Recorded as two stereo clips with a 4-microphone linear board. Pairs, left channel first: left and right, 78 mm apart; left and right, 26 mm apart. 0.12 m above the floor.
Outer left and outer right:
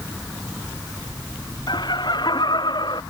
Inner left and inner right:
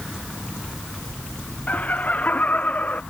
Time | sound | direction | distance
1.7 | laughter | 65° left (ahead or behind) | ?